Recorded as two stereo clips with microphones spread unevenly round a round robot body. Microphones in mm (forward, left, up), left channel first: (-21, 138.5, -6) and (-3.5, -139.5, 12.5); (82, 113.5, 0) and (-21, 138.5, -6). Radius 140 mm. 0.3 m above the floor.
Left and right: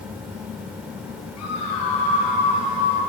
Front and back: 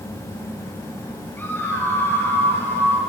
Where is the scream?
60° left, 7 m.